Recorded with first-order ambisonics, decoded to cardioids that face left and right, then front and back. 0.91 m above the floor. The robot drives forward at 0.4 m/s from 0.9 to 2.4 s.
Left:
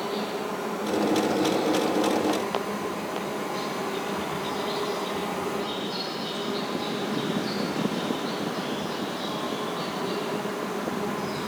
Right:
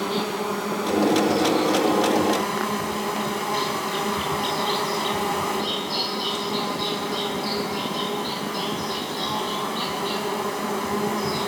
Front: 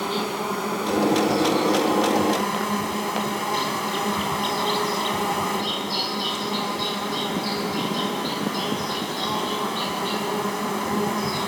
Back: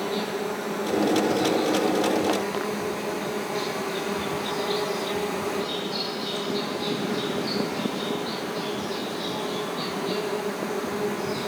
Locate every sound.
0.0 s an insect: 35° right, 4.5 m; by 11.5 s 40° right, 4 m